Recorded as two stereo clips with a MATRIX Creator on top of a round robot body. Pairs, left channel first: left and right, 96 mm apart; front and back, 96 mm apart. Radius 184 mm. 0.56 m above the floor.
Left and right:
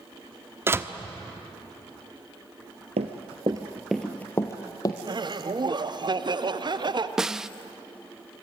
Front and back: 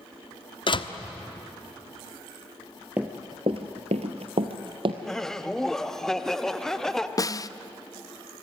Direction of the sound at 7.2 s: 10° right.